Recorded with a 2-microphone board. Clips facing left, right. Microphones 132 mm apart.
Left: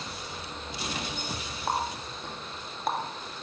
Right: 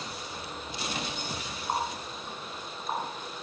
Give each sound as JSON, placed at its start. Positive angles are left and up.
{"t": 1.7, "sound": "a running tap", "side_deg": 65, "distance_m": 1.8}